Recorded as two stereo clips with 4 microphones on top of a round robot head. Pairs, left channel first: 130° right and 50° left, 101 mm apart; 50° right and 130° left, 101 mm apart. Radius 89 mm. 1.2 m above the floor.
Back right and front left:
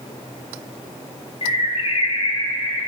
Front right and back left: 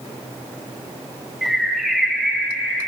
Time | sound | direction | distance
1.4 | a bird | 140° right | 0.9 m